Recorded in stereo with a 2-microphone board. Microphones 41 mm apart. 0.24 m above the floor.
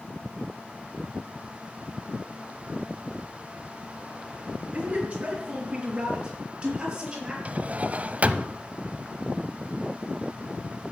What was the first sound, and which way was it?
A man speaking, 35° right (ahead or behind).